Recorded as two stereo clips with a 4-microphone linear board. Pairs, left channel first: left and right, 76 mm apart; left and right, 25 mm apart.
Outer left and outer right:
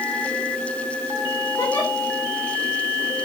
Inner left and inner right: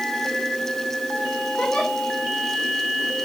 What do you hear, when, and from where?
1.6 s a giggle: 45° left (ahead or behind), 7.5 m